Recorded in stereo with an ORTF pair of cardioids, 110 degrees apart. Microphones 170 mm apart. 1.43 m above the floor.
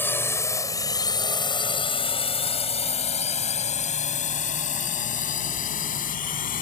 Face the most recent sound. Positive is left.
turn(degrees=55)